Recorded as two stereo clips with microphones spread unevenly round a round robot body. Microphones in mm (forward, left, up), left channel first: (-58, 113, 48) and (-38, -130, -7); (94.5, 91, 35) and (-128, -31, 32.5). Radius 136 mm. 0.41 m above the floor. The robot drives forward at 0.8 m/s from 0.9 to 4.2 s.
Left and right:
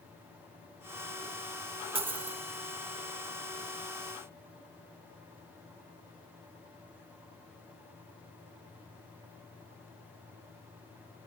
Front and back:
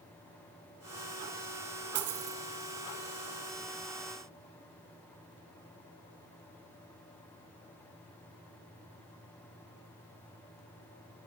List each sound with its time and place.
1.9 s a dropped coin: 150° right, 1.3 m; by 2.4 s 155° right, 1.6 m